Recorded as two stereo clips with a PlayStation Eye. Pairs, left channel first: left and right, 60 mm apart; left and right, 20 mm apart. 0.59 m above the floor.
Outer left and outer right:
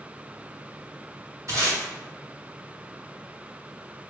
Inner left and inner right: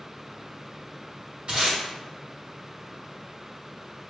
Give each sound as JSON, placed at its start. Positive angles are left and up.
{"t": 1.5, "sound": "tape being pulled", "side_deg": -60, "distance_m": 1.9}